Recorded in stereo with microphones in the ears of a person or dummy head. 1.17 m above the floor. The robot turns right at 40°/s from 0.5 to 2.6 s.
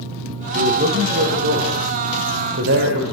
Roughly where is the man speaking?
Behind right.